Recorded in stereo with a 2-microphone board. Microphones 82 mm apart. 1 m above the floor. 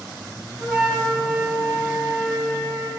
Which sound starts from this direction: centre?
A flute, at 0.6 s.